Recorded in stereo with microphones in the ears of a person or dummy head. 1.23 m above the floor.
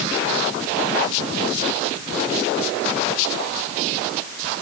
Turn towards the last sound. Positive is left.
No sound to turn to.